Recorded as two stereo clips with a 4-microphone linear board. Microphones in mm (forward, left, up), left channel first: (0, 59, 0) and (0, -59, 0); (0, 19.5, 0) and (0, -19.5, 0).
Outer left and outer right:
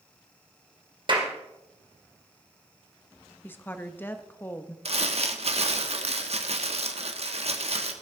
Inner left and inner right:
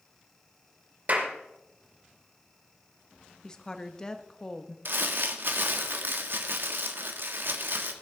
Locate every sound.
1.1 s a clap: 45° right (ahead or behind), 2.5 m
3.4 s a woman speaking: 15° left (ahead or behind), 0.9 m
4.8 s crumpling: 60° right (ahead or behind), 1.3 m